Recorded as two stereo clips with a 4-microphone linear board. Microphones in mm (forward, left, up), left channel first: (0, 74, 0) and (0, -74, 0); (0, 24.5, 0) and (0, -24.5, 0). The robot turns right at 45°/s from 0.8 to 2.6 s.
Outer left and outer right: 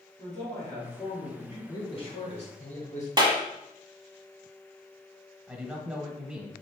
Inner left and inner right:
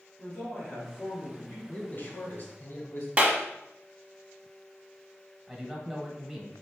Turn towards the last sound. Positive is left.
turn(degrees=-5)  # may be behind; listen again after turning